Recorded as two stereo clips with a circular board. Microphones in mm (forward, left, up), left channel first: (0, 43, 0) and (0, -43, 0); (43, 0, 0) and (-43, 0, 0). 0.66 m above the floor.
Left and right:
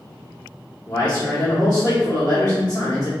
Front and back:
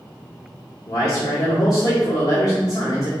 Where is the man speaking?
25° left, 1.1 m.